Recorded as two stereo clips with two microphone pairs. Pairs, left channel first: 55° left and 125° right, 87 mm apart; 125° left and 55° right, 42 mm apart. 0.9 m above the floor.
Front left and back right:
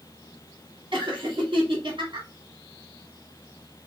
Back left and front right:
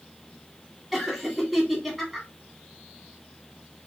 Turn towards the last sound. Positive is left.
turn(degrees=-150)